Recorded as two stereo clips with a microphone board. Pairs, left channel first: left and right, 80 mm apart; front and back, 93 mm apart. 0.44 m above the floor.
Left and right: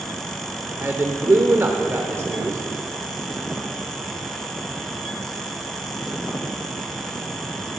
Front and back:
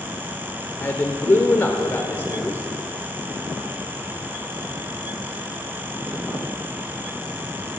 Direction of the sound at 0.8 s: 50° right.